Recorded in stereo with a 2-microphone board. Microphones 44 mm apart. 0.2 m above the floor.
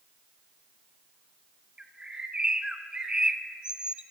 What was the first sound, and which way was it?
A bird, 20° right (ahead or behind).